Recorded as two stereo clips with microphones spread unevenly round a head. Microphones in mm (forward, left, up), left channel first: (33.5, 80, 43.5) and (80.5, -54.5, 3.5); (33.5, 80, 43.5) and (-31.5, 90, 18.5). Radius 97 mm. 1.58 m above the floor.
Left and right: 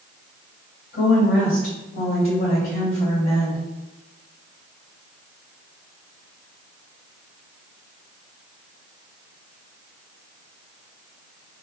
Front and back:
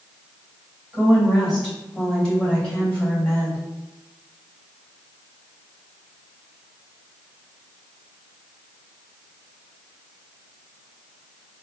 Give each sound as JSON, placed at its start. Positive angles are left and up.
{"t": 0.9, "sound": "a woman speaking", "azimuth_deg": 95, "distance_m": 1.7}